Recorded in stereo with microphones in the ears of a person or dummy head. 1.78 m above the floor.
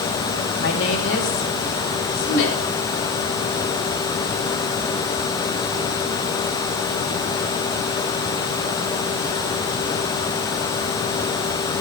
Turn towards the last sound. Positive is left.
turn(degrees=70)  # may be behind; listen again after turning